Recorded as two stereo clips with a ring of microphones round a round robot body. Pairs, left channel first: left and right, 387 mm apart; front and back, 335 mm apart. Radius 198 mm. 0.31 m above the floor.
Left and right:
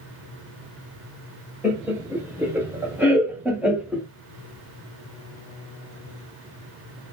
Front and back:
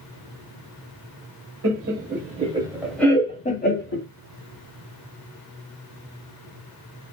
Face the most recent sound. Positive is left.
turn(degrees=-5)